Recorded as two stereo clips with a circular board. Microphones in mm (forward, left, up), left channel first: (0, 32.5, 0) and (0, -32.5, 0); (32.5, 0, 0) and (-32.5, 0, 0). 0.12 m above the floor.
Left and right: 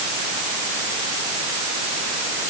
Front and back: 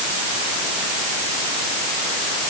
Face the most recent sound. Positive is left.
No sound to turn to.